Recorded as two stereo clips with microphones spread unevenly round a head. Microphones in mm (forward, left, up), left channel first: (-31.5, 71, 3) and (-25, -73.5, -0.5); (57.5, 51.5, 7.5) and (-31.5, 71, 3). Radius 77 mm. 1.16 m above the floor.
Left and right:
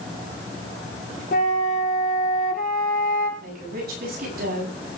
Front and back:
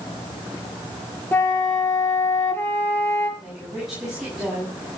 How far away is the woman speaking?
About 9 m.